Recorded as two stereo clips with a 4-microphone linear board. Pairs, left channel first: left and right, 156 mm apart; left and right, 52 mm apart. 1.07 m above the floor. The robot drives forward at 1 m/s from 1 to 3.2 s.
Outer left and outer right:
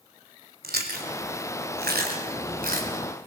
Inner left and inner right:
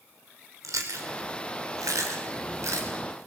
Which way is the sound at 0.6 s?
80° right.